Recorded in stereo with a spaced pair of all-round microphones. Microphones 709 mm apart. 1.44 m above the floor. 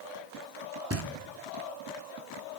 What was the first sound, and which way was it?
Knocking, 20° right (ahead or behind).